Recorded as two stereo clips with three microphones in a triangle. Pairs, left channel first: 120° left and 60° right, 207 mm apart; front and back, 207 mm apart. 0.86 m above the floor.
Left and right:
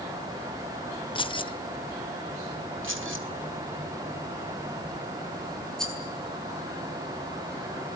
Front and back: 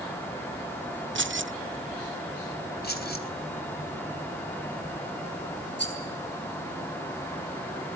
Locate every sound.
1.1 s keys jangling: straight behind, 0.6 m
2.8 s keys jangling: 40° right, 3 m
5.8 s a rattle: 35° left, 6 m